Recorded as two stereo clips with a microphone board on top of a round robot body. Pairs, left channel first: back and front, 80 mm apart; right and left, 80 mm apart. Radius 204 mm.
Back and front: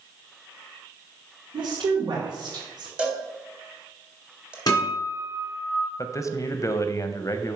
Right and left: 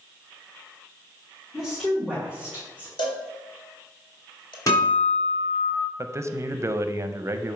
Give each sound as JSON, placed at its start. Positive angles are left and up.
{"t": 1.5, "sound": "a woman speaking", "azimuth_deg": 5, "distance_m": 2.0}
{"t": 3.0, "sound": "a cowbell", "azimuth_deg": -80, "distance_m": 1.6}
{"t": 4.7, "sound": "a guitar", "azimuth_deg": -140, "distance_m": 3.0}
{"t": 6.0, "sound": "a man speaking", "azimuth_deg": 135, "distance_m": 0.7}